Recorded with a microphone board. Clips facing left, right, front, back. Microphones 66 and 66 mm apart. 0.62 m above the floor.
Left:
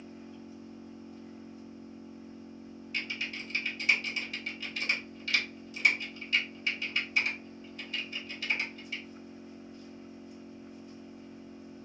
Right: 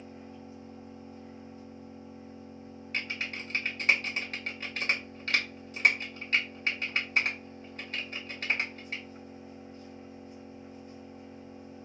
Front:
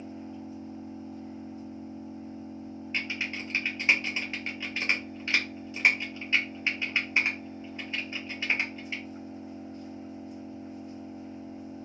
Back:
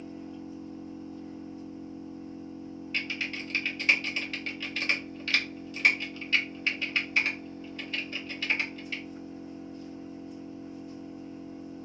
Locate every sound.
0.0 s an engine running: 35° right, 2.5 m
2.9 s typing on a keyboard: 60° right, 1.2 m